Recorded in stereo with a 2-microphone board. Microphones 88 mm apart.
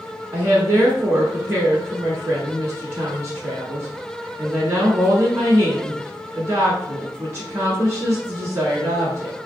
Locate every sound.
0.3 s a woman speaking: 30° right (ahead or behind), 1.3 m